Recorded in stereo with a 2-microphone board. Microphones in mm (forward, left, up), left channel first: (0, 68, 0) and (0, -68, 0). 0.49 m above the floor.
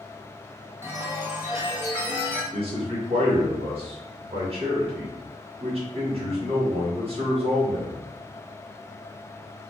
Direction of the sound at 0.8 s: 15° right (ahead or behind).